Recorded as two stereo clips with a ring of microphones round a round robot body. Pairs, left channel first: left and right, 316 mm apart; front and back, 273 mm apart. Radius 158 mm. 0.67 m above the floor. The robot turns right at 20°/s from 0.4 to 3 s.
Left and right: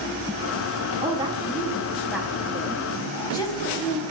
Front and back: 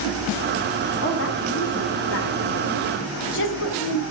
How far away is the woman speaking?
About 0.8 m.